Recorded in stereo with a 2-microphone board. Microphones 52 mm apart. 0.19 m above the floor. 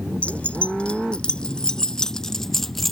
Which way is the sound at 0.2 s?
25° left (ahead or behind).